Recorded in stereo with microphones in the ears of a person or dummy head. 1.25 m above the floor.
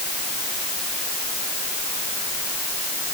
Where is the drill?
I don't hear a drill.